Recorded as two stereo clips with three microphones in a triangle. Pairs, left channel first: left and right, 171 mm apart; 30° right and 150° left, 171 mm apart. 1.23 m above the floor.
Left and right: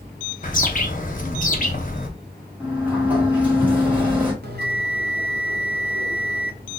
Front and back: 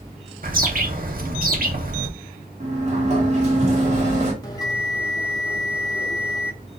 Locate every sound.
0.4 s a bird: 125° left, 0.6 m
2.6 s a sliding door: 170° right, 1.1 m
4.4 s a bell: 100° right, 0.9 m